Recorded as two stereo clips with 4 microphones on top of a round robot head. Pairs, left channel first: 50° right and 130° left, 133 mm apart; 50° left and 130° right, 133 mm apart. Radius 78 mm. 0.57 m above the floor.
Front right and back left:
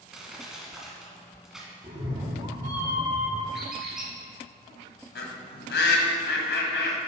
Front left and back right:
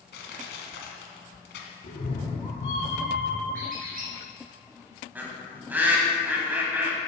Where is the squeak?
145° right, 2.5 m.